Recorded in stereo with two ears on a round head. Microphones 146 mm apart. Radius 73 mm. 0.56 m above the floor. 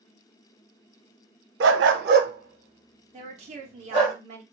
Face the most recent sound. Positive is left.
turn(degrees=-45)  # may be behind; listen again after turning